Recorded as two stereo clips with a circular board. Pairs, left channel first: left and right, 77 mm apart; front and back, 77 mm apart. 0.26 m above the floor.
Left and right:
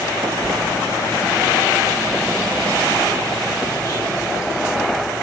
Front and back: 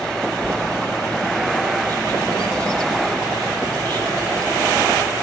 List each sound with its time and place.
0.3 s a bird: 145° left, 7 m